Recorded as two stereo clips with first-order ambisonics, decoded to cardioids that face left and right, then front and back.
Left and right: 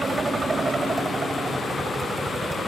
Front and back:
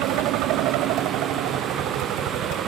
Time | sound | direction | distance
0.0 | a helicopter | 165° right | ?